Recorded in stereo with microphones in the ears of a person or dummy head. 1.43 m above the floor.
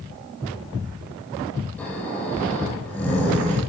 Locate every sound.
1.8 s snoring: 5° left (ahead or behind), 4 m